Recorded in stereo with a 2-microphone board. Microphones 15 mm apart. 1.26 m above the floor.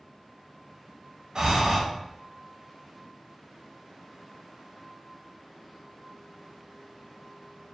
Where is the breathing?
45° right (ahead or behind), 1.1 m.